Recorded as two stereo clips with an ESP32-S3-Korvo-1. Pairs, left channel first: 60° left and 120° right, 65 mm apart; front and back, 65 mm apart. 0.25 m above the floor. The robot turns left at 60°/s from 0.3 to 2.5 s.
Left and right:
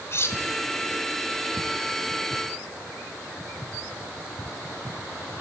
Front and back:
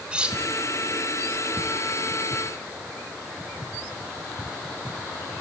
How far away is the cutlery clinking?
About 1.5 m.